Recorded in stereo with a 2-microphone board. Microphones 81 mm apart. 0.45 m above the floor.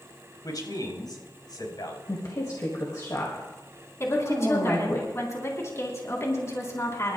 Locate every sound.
0.4 s a man speaking: 60° left (ahead or behind), 3.5 m; by 2.0 s 70° left (ahead or behind), 3.5 m
2.1 s a woman speaking: 50° left (ahead or behind), 1.7 m
4.0 s a woman speaking: 40° left (ahead or behind), 3 m